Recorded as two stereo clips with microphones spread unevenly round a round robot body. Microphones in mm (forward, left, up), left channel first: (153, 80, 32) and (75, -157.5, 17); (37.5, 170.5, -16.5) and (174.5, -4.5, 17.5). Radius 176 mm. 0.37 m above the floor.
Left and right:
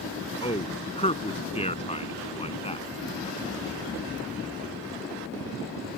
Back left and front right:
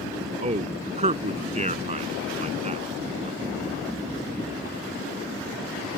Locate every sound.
0.4 s a man speaking: 5° left